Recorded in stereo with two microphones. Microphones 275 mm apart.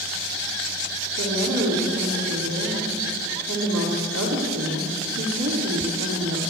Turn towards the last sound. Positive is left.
turn(degrees=-70)  # may be behind; listen again after turning